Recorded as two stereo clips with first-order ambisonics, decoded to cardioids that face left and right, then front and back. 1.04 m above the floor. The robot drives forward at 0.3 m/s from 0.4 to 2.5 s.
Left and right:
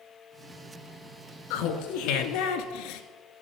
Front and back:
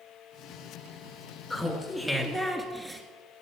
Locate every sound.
1.5 s laughter: 85° left, 1.6 m; by 3.0 s 95° left, 1.6 m